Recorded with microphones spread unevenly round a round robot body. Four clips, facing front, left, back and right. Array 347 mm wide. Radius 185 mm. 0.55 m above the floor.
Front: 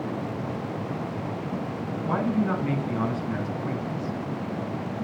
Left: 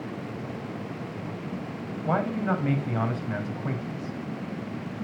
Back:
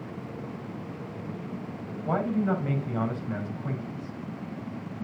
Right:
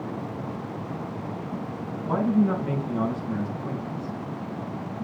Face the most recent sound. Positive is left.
turn(degrees=95)